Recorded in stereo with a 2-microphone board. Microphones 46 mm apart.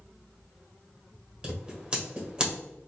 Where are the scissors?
15° right (ahead or behind), 1.6 m.